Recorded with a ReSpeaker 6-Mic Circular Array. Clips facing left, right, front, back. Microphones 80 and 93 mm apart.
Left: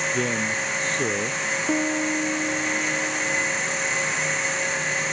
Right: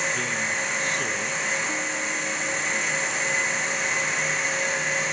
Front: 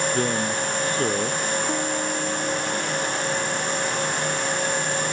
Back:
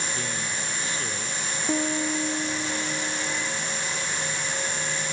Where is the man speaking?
35° left.